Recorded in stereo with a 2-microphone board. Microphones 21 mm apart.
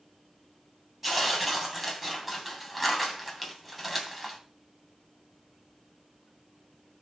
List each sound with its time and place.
1.0 s tearing paper: 10° right (ahead or behind), 3 m